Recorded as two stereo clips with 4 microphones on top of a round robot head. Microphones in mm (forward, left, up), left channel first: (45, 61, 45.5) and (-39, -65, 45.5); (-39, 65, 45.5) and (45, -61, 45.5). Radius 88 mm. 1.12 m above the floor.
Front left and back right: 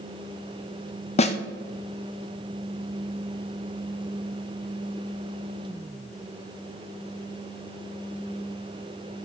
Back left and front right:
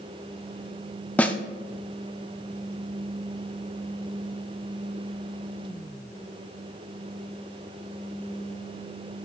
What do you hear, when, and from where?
1.2 s a snare drum: 45° left, 0.7 m